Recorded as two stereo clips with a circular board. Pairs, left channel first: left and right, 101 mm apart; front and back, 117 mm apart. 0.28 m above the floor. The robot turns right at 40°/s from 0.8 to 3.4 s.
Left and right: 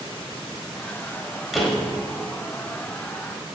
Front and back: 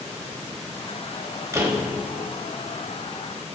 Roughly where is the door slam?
Behind.